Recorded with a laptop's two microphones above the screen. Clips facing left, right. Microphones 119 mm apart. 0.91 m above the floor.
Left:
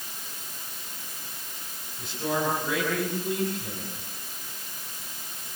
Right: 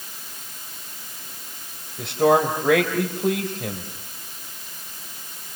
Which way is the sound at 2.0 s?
85° right.